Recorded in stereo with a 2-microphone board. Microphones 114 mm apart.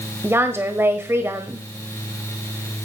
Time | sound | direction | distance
0.2 | a woman speaking | 20° right (ahead or behind) | 1.1 m